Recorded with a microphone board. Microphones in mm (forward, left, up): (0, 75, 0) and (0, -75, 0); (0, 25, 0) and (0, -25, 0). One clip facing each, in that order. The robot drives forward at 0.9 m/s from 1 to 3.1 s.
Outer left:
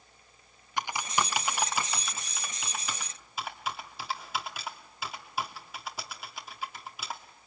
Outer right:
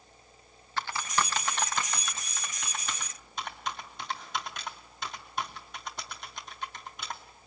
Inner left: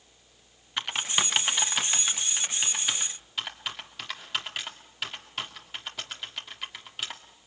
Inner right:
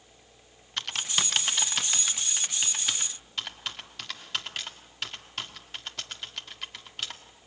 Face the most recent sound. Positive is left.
turn(degrees=5)  # may be behind; listen again after turning